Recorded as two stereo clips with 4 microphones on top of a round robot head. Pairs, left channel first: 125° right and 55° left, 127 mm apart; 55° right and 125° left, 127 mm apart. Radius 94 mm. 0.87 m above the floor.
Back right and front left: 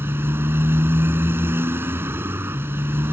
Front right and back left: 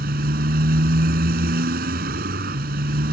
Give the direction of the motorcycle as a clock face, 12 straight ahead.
8 o'clock.